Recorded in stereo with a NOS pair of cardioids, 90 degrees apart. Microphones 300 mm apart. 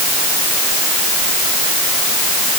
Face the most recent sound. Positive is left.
No sound to turn to.